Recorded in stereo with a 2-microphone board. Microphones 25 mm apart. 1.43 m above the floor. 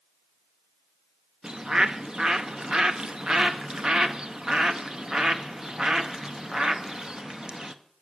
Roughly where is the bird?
Right.